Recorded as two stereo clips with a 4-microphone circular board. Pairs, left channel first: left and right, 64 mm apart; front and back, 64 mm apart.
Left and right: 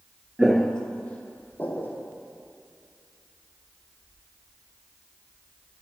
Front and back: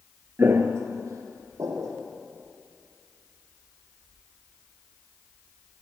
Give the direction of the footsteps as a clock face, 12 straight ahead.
6 o'clock.